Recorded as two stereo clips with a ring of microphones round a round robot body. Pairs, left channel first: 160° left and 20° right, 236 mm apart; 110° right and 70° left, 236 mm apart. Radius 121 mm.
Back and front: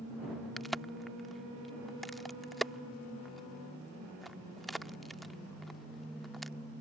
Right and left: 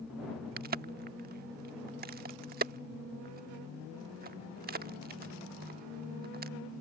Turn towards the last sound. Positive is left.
turn(degrees=65)